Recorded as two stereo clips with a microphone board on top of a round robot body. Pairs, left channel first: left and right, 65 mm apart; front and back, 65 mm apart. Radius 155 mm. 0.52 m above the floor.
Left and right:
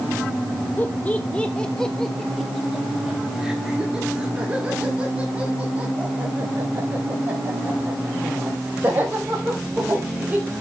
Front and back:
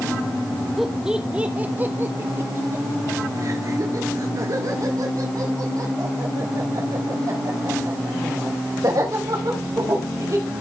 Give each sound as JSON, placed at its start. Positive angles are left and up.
{"t": 0.8, "sound": "laughter", "azimuth_deg": 95, "distance_m": 1.1}